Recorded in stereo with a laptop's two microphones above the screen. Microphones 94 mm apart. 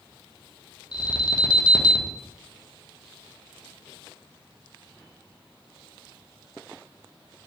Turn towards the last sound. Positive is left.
turn(degrees=50)  # may be behind; listen again after turning